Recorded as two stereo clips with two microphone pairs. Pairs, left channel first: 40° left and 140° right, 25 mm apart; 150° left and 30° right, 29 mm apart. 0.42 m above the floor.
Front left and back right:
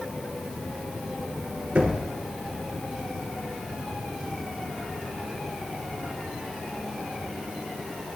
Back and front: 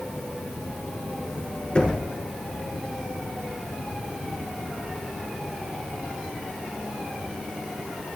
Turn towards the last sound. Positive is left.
turn(degrees=-150)